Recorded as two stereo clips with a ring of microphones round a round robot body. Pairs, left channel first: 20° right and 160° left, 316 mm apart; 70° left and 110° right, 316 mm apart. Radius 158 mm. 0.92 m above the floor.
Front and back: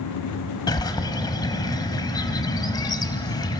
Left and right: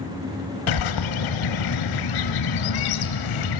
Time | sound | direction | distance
0.7 | a bird | 55° left | 1.5 m